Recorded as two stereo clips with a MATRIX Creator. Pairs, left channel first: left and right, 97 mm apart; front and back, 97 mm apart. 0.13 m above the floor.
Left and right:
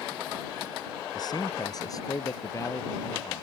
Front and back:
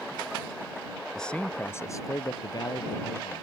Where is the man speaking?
85° left; by 3.4 s 30° left.